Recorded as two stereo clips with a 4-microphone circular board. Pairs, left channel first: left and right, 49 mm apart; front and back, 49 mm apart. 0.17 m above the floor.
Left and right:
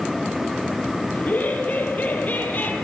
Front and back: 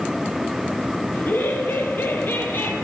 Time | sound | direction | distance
1.1 | laughter | 40° left | 4 m